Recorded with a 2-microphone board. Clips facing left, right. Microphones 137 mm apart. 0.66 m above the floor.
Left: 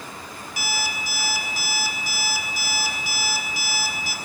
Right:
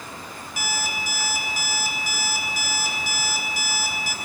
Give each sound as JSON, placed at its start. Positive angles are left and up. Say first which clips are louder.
{"t": 0.6, "sound": "an alarm clock", "louder": "even", "side_deg": -50, "distance_m": 3.5}